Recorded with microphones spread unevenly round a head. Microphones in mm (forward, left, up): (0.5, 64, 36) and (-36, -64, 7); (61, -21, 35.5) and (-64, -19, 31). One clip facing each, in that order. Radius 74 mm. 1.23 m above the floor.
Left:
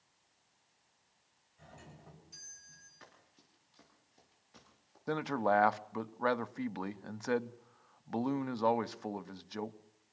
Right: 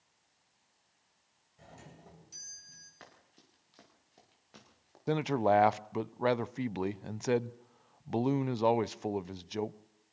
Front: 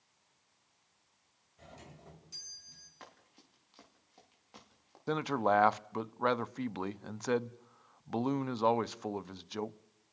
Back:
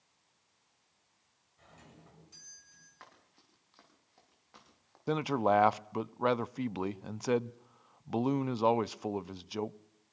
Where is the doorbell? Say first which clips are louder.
Right 2 dB, front 4 dB; 55° right, 8 m.